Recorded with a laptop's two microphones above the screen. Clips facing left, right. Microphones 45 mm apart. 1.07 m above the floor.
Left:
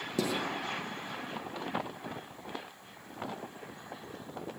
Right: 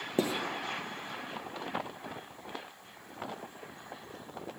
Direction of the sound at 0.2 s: 30° right (ahead or behind).